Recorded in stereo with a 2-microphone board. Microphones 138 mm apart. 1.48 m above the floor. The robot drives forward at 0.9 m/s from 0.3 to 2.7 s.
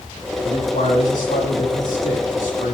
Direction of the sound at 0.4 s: 80° left.